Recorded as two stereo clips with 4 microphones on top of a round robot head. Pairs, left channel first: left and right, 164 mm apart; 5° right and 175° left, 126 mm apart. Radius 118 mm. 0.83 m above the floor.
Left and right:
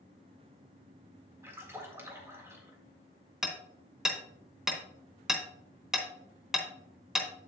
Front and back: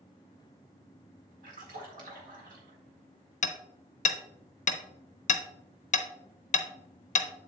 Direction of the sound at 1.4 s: 165° right.